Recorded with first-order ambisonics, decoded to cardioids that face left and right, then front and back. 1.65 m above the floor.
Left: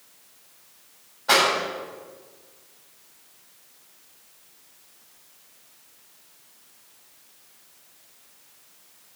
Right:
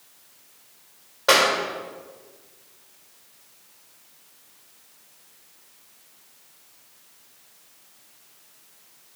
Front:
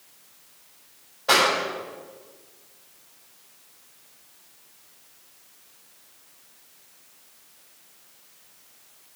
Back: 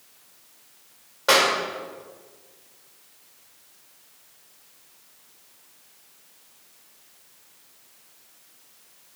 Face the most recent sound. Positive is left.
turn(degrees=-130)